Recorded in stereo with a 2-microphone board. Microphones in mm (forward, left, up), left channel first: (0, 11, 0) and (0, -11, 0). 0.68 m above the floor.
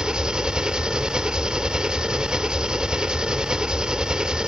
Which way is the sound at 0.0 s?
45° right (ahead or behind).